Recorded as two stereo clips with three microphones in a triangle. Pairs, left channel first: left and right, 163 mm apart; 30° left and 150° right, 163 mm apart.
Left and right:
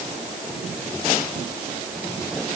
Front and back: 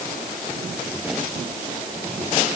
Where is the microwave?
I don't hear a microwave.